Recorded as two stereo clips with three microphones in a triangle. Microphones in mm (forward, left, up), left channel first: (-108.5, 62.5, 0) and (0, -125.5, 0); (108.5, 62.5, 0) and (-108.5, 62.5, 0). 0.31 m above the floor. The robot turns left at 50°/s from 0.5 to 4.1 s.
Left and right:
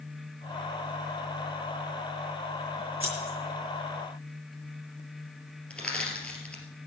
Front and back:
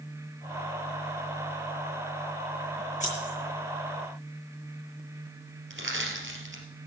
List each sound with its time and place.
3.0 s scissors: 50° right, 6 m; by 3.3 s 70° right, 6 m
5.7 s crushing: 155° right, 2.5 m